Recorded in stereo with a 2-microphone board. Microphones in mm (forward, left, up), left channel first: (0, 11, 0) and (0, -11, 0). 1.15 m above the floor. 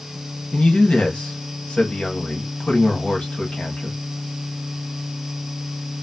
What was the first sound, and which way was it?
A man speaking, 65° left (ahead or behind).